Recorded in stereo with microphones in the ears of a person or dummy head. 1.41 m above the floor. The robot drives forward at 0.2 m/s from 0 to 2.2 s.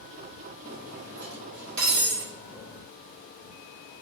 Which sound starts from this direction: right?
Cutlery clinking, at 0.6 s.